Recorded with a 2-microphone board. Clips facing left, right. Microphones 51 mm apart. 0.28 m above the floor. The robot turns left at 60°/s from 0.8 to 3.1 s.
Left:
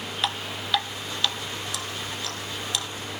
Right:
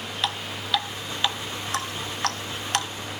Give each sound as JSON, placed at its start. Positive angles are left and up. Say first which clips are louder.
{"t": 0.2, "sound": "dripping", "louder": "even", "side_deg": 0, "distance_m": 1.7}